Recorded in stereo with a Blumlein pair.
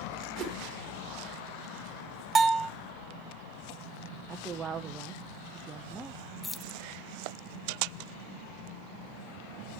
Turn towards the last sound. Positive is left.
turn(degrees=10)